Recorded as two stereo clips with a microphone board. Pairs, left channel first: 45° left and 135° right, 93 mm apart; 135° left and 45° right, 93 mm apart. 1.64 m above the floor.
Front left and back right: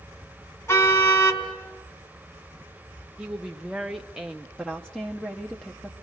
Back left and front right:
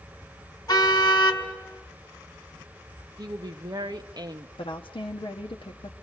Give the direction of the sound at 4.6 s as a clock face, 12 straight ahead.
8 o'clock.